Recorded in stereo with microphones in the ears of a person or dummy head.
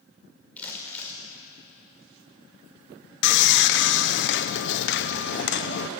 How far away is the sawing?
About 0.9 m.